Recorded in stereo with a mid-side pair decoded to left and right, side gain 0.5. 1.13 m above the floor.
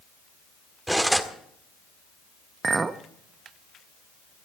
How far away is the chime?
No chime in this recording.